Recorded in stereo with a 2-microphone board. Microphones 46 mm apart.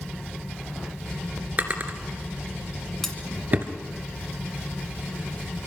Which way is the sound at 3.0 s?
10° left (ahead or behind).